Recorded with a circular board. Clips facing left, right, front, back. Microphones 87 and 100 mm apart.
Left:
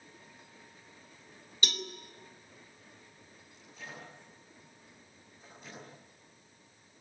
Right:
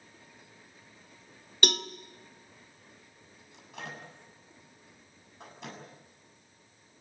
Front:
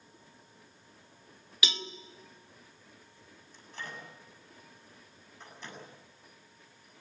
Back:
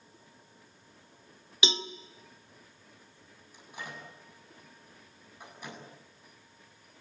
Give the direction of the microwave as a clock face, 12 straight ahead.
3 o'clock.